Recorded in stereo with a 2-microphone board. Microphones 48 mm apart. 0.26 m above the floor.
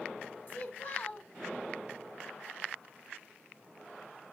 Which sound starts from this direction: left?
A child speaking, at 0.5 s.